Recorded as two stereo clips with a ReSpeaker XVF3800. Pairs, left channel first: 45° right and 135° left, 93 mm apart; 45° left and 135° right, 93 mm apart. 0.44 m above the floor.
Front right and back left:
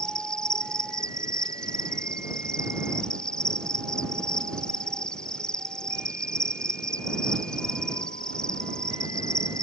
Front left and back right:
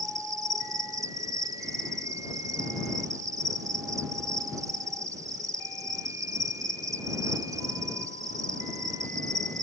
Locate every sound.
0.0 s an insect: 120° right